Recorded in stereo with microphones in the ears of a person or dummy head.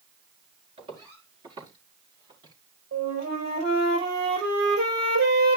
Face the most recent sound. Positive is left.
turn(degrees=-65)  # may be behind; listen again after turning